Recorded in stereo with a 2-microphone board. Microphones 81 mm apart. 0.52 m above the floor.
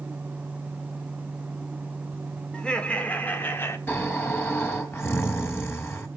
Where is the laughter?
10° left (ahead or behind), 1.7 m; by 3.8 s 30° left (ahead or behind), 1.4 m.